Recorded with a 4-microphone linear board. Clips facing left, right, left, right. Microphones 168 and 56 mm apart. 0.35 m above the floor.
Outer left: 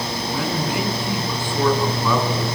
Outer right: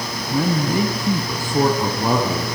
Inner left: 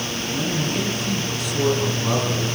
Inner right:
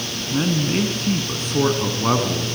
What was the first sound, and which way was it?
A man speaking, 40° right (ahead or behind).